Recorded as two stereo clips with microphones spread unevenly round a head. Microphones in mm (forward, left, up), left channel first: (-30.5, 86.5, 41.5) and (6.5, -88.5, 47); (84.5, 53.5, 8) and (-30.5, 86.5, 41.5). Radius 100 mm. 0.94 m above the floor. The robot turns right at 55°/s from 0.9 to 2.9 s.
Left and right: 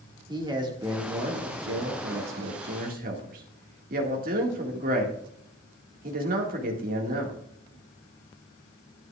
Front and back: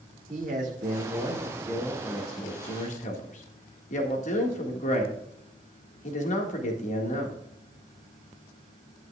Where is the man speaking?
145° right, 2 m; by 7.4 s 35° right, 2 m.